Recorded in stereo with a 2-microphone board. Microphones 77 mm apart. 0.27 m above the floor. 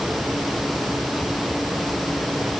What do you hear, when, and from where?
Only background noise.